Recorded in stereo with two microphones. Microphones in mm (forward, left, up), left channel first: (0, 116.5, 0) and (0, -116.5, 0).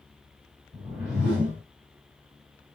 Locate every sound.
0.7 s a whoosh: 5° right (ahead or behind), 2.0 m